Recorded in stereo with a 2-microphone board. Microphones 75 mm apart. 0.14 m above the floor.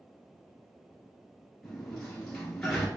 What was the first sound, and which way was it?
A sliding door, 10° left (ahead or behind).